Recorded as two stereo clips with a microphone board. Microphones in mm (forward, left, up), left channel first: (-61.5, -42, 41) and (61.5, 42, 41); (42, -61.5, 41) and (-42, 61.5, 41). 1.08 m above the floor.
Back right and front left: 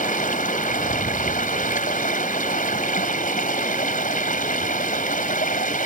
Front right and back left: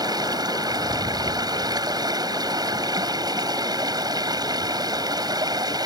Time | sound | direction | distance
0.0 | running water | 175° right | ?